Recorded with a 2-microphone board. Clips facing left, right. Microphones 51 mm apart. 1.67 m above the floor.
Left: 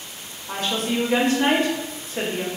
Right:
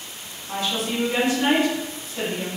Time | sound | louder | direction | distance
0.5 | a woman speaking | left 1 dB | 45° left (ahead or behind) | 0.8 m